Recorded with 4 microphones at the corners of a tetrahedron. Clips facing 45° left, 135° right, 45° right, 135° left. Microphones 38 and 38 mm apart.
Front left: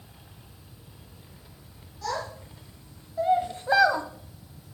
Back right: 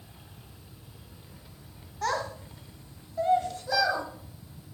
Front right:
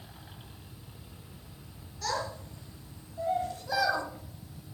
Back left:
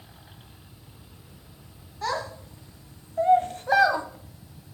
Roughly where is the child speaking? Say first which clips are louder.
Back right 2 dB, back left 4 dB; behind.